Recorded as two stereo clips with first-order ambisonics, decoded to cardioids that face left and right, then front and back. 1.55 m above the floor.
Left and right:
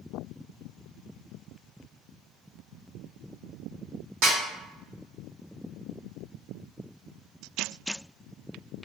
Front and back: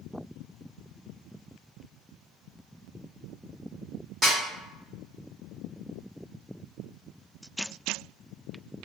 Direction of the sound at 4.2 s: 100° right.